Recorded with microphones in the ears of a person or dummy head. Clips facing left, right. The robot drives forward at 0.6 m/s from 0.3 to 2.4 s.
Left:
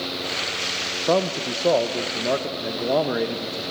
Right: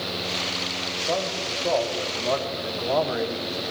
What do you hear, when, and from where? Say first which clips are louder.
1.1 s a man speaking: left 7 dB; 65° left (ahead or behind), 0.9 m; by 3.6 s 35° left (ahead or behind), 1.4 m